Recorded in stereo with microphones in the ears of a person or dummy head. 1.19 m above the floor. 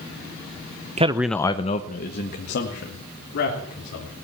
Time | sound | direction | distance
1.0 | a man speaking | 30° right (ahead or behind) | 0.7 m